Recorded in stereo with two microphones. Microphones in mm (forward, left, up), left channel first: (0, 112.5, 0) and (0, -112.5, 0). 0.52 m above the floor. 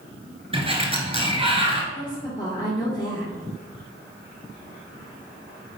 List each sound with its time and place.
0.5 s a sliding door: 25° right (ahead or behind), 1.2 m
1.9 s a woman speaking: 15° left (ahead or behind), 1.5 m